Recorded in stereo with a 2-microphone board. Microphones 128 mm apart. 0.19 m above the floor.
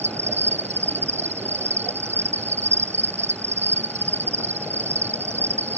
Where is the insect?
60° right (ahead or behind).